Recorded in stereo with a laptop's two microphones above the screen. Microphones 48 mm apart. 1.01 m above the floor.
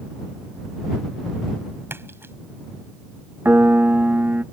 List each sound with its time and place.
1.9 s a splash: 50° right (ahead or behind)
3.5 s a piano: 40° right (ahead or behind)